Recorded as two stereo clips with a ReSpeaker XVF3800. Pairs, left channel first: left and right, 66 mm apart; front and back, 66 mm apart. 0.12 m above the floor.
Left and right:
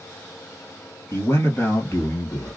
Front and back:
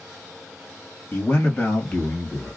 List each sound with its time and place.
1.1 s a man speaking: 55° left, 2 m; by 2.6 s 70° left, 1.6 m